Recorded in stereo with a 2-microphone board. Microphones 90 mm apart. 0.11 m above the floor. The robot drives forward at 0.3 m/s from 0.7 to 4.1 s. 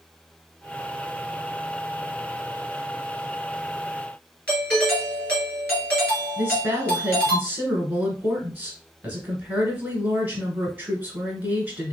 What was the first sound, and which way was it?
A doorbell, 15° left (ahead or behind).